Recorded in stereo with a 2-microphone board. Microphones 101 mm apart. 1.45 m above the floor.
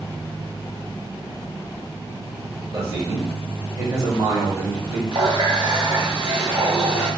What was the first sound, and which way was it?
A man speaking, 30° right (ahead or behind).